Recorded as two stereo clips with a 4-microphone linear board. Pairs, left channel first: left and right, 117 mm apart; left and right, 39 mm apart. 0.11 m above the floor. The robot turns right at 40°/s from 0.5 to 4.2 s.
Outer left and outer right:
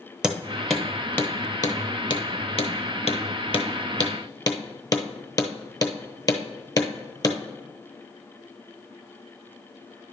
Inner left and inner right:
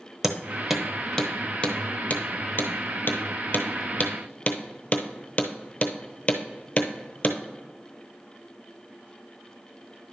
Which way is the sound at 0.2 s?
5° right (ahead or behind).